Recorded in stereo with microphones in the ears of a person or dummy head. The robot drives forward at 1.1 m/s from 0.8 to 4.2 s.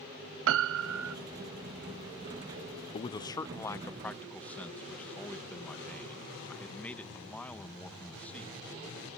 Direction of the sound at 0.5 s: 70° right (ahead or behind).